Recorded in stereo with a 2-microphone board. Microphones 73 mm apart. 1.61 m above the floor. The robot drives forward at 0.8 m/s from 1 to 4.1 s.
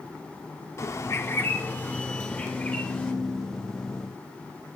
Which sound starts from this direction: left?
A bird, at 0.8 s.